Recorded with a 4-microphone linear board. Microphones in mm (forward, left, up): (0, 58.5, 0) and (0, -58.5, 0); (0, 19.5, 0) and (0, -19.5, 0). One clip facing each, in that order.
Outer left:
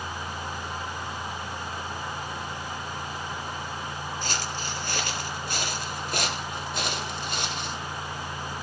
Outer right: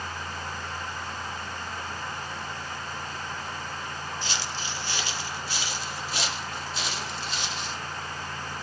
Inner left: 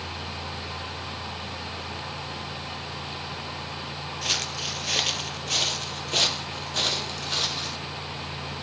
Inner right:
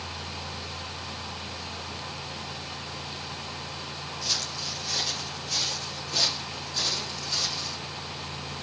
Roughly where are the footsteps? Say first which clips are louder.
Outer left 2 dB, inner left 5 dB; left.